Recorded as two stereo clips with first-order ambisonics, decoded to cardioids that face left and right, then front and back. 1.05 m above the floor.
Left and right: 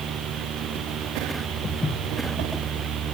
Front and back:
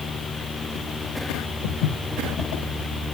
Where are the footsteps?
10° left, 3 m.